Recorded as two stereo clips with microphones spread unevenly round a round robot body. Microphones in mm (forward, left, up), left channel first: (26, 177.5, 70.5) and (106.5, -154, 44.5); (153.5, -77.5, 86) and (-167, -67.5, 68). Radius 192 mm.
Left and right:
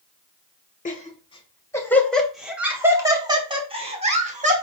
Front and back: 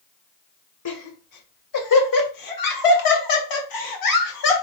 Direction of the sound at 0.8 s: 35° left.